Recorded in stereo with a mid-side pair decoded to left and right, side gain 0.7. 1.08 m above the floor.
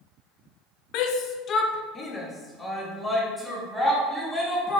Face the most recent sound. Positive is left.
turn(degrees=0)